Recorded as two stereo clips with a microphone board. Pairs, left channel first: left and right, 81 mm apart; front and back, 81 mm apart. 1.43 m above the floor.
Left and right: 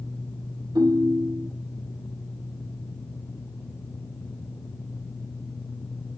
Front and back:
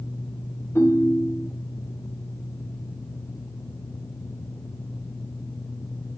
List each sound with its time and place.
0.8 s a ringtone: 60° right, 3.5 m